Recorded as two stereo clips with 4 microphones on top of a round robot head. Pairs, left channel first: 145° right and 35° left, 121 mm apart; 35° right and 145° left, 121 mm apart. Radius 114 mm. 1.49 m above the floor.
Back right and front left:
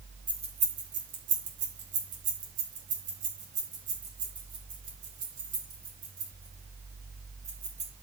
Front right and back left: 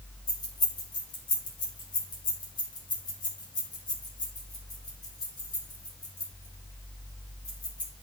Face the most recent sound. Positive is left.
turn(degrees=20)